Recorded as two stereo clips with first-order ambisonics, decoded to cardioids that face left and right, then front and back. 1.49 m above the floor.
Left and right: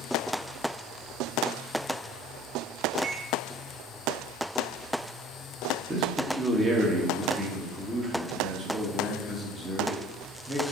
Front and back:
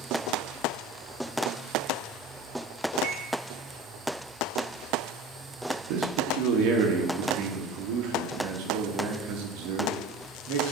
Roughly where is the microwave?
Behind right.